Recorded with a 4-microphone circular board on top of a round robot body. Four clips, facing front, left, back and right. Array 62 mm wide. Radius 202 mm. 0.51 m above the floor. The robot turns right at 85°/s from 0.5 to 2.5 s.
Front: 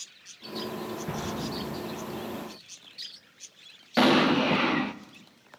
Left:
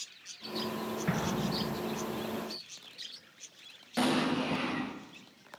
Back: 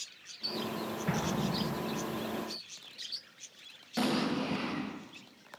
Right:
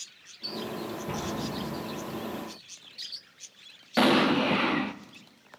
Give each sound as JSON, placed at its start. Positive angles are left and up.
{"t": 1.1, "sound": "an explosion", "azimuth_deg": 105, "distance_m": 8.5}
{"t": 4.0, "sound": "an explosion", "azimuth_deg": -40, "distance_m": 1.3}